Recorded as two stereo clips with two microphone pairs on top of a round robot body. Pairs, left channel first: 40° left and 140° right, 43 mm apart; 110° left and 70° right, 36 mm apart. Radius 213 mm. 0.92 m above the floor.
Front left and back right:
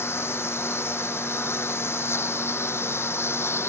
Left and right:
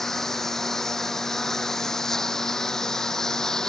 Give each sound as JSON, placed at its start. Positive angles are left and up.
{"t": 0.0, "sound": "a lawn mower", "azimuth_deg": 35}